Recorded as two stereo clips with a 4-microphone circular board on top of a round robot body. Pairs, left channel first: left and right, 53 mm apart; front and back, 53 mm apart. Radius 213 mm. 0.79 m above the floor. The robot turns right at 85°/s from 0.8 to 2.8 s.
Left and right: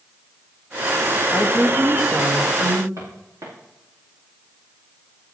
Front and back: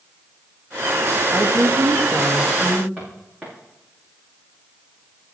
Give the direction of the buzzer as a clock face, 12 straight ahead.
I don't hear a buzzer.